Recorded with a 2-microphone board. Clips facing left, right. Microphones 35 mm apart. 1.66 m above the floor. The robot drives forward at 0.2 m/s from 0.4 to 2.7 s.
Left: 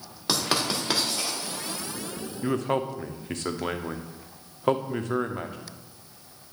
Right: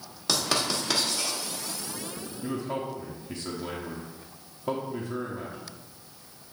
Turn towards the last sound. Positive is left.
turn(degrees=65)  # may be behind; listen again after turning